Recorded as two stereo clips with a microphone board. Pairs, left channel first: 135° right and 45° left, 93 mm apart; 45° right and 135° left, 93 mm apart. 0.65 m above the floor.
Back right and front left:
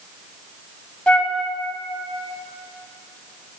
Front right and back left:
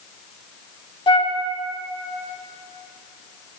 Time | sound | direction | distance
1.1 | a flute | 60° right | 0.7 m